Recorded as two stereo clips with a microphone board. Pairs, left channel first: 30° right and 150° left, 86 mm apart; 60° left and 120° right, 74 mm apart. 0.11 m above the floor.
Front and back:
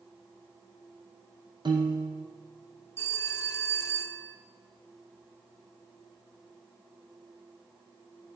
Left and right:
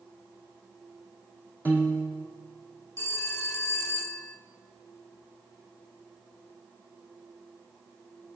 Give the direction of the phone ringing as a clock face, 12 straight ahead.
11 o'clock.